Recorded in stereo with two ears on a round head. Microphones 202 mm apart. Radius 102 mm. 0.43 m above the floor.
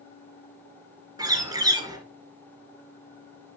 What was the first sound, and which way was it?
A bird, 20° right (ahead or behind).